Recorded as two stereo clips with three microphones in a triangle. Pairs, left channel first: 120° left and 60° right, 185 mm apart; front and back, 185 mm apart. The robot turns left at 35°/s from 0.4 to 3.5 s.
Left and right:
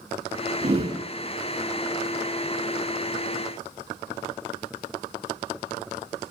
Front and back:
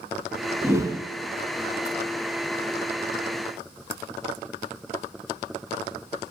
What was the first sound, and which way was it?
A whoosh, 100° right.